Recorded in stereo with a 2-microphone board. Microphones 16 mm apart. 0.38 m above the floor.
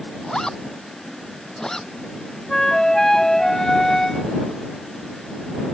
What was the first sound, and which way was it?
A zipper, 50° left (ahead or behind).